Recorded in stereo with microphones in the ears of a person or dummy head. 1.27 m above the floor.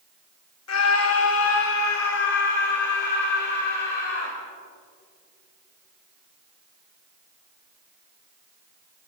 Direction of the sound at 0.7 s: 80° left.